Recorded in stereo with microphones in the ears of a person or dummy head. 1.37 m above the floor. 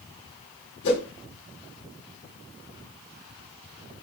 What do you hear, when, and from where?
0.8 s a whoosh: 65° left (ahead or behind), 2.5 m